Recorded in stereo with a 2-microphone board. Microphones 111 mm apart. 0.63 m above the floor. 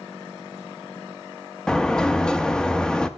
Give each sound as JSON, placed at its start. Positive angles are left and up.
{"t": 1.7, "sound": "a sliding door", "side_deg": 5, "distance_m": 0.6}